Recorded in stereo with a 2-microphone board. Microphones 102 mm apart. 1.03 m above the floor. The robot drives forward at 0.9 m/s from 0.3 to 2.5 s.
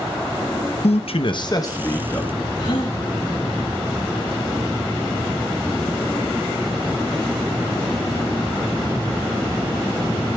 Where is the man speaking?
75° left (ahead or behind), 0.5 m; by 2.5 s 20° left (ahead or behind), 1.5 m.